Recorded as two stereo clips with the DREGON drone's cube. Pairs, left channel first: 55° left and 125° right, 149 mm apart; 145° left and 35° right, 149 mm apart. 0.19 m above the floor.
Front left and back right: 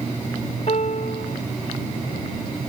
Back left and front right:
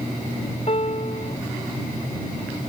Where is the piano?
100° left.